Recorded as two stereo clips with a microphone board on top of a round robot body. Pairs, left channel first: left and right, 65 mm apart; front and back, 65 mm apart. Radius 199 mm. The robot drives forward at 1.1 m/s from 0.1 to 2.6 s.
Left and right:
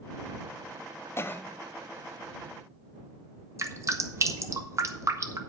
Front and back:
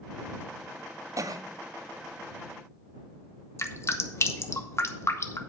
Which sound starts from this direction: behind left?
A cough, at 1.2 s.